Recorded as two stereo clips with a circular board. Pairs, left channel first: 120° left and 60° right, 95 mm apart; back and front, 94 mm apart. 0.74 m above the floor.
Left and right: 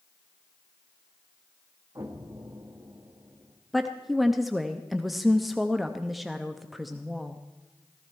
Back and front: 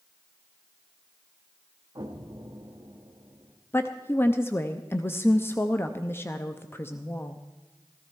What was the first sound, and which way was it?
An explosion, 25° right.